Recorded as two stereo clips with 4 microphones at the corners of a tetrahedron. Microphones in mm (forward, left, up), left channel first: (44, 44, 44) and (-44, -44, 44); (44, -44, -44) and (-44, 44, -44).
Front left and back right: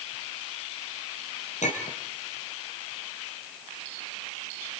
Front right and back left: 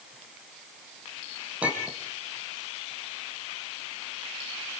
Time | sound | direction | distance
1.6 | a clink | 55° left | 3.5 m